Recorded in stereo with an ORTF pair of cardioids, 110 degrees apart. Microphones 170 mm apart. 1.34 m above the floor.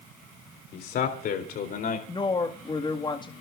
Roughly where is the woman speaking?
Ahead left.